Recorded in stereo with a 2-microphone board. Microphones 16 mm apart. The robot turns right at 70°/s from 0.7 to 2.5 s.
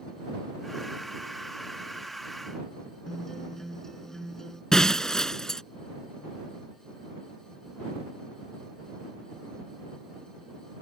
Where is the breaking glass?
35° left (ahead or behind).